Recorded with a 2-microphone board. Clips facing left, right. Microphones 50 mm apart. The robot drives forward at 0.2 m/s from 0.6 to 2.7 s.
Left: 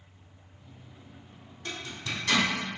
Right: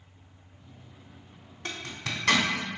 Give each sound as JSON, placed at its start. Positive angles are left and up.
{"t": 1.6, "sound": "a zipper", "side_deg": -65, "distance_m": 0.7}